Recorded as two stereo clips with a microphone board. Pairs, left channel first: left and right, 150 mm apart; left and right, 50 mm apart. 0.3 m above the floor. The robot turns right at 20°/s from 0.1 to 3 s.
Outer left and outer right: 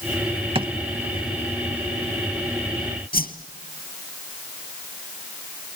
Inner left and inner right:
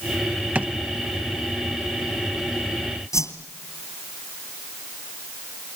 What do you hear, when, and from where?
0.6 s a drawer: 35° right (ahead or behind), 0.6 m; by 0.7 s 30° right (ahead or behind), 0.6 m
3.1 s a whoosh: 85° left, 1.9 m